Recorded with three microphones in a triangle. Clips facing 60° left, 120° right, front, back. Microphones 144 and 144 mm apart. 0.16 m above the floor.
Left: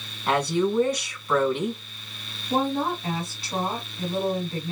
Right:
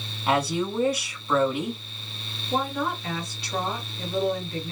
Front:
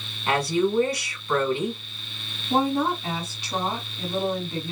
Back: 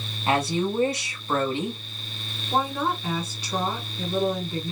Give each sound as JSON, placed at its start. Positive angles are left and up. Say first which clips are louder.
{"t": 0.3, "sound": "a woman speaking", "louder": "left 2 dB, front 1 dB", "azimuth_deg": 170, "distance_m": 1.1}
{"t": 2.5, "sound": "a woman speaking", "louder": "left 3 dB, front 3 dB", "azimuth_deg": 65, "distance_m": 1.7}